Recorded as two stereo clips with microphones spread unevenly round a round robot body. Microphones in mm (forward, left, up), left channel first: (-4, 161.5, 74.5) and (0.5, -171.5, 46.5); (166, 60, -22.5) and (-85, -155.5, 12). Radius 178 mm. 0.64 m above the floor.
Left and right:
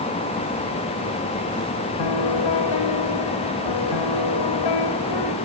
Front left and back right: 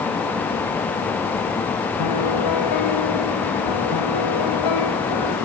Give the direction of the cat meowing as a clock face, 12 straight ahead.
No cat meowing in this recording.